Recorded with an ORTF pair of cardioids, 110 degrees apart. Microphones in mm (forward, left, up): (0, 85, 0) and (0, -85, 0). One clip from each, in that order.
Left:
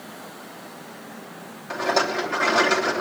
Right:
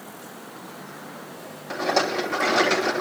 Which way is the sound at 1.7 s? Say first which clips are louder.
Left 1 dB; 5° right.